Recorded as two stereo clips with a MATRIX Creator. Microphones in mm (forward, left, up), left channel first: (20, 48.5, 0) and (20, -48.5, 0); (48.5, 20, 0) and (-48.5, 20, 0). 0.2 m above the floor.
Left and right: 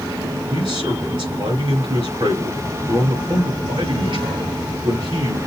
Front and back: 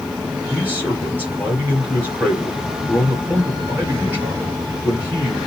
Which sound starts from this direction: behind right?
A man speaking, at 0.5 s.